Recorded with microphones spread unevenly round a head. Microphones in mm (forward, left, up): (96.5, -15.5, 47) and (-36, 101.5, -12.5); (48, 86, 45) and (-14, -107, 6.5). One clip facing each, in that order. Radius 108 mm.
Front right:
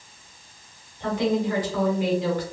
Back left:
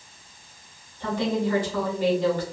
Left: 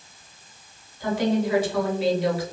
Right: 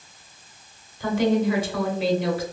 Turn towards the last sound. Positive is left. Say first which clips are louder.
# front right 2 dB, right 2 dB
turn(degrees=-130)